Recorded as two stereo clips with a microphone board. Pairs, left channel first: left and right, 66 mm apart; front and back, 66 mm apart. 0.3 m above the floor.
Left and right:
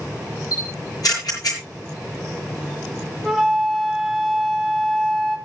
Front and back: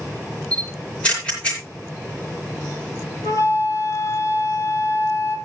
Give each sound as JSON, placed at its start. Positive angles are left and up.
{"t": 0.5, "sound": "a camera shutter", "azimuth_deg": 70, "distance_m": 5.0}
{"t": 3.2, "sound": "a flute", "azimuth_deg": 0, "distance_m": 1.9}